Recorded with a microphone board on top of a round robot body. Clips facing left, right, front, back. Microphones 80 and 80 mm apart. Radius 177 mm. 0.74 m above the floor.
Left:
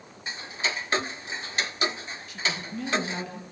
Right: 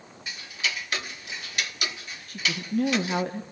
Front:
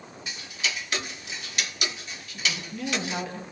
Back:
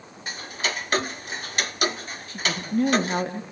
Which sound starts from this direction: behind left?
Ticking, at 0.3 s.